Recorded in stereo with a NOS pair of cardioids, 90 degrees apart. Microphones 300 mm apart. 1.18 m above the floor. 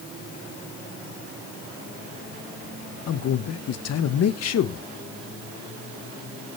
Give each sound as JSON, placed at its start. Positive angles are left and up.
{"t": 3.1, "sound": "a man speaking", "azimuth_deg": 60, "distance_m": 1.3}